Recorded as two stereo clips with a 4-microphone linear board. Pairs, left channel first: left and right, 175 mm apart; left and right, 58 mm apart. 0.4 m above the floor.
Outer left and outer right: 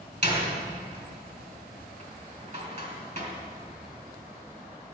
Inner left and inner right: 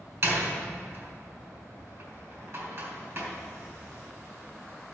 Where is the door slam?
50° right (ahead or behind), 2.5 m.